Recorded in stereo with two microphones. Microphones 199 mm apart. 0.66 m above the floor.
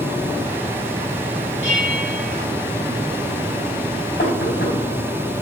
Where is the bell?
75° left (ahead or behind), 5 m.